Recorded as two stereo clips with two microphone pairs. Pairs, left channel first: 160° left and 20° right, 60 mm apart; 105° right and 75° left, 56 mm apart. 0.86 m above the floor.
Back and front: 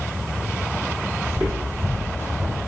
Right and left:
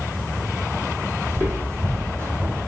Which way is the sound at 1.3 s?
40° left.